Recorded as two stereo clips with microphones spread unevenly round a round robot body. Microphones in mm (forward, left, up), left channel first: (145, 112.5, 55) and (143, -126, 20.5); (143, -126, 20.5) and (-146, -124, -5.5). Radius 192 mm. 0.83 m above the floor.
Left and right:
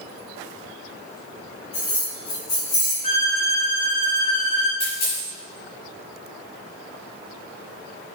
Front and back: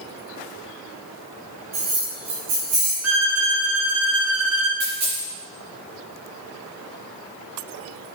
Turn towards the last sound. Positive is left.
turn(degrees=135)